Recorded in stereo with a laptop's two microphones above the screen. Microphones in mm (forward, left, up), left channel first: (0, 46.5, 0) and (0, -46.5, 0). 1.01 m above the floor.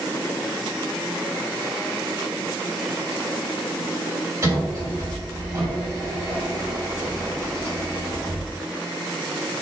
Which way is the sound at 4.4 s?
30° right (ahead or behind).